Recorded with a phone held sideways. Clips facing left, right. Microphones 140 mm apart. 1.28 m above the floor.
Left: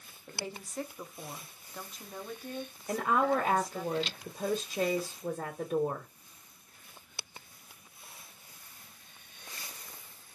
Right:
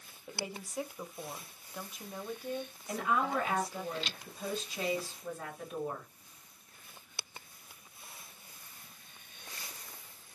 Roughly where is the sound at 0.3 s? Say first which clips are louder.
Even; centre.